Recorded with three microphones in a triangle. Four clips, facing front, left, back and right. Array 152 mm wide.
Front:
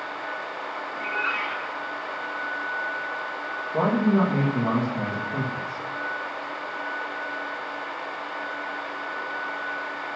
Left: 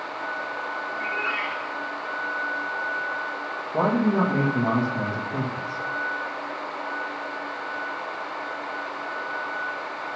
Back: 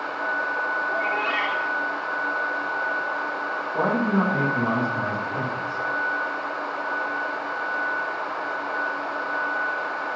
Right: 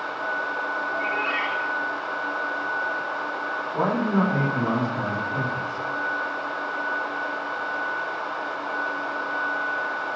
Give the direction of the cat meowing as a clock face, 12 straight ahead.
6 o'clock.